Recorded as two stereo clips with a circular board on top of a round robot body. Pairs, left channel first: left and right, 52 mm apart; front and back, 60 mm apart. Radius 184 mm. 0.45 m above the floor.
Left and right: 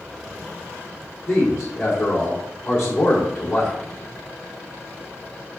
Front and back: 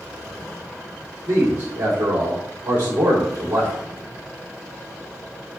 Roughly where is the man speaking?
Behind left.